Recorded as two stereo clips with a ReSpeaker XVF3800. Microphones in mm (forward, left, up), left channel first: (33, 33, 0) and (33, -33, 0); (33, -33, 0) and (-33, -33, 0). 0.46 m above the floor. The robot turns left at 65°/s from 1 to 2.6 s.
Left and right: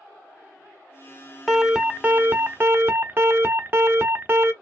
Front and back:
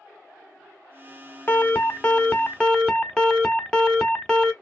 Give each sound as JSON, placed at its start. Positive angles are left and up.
{"t": 1.5, "sound": "an alarm", "azimuth_deg": -5, "distance_m": 1.0}